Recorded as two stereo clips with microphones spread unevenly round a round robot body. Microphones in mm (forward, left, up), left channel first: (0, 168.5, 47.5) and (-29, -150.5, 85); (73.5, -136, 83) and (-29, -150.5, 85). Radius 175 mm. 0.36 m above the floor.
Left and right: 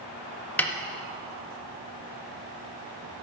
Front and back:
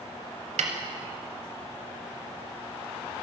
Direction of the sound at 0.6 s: 170° left.